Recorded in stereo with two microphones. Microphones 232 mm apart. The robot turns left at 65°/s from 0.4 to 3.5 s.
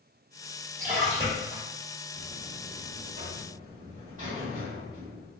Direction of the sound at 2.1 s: 55° right.